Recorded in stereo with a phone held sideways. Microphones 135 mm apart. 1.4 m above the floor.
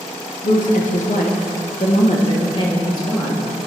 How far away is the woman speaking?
About 1.3 m.